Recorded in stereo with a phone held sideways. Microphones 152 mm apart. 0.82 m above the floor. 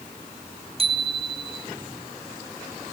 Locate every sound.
0.8 s a bicycle bell: 40° right (ahead or behind), 3.5 m